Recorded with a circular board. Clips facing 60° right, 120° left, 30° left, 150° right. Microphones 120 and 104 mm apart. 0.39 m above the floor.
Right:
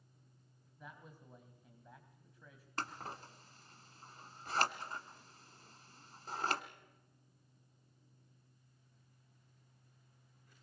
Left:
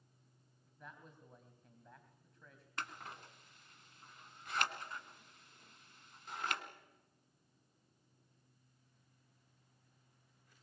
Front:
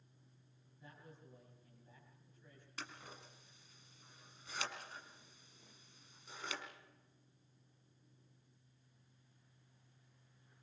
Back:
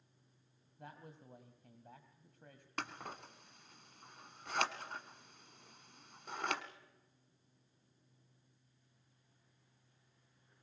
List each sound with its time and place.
0.8 s a man speaking: 145° right, 2.5 m
2.8 s scissors: 115° right, 1.3 m